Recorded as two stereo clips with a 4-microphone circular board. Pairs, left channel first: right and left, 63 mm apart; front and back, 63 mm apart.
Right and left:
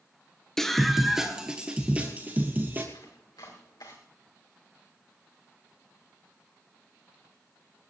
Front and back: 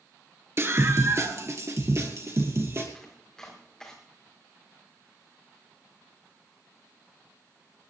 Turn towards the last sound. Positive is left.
turn(degrees=-80)